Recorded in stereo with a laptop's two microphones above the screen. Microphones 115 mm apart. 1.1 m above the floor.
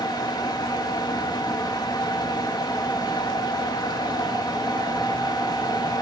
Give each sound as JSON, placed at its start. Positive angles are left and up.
{"t": 0.0, "sound": "a fan", "side_deg": 35, "distance_m": 0.9}